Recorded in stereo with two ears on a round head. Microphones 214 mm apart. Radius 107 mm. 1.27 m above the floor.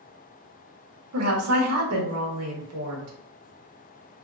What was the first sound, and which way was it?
A woman speaking, 70° right (ahead or behind).